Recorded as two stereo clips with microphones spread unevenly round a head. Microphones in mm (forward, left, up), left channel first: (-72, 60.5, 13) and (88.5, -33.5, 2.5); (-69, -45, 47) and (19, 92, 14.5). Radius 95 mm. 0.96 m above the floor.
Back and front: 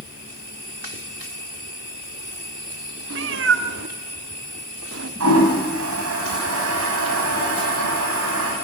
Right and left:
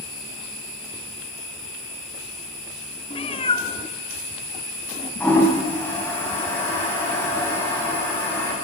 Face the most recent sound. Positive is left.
turn(degrees=-45)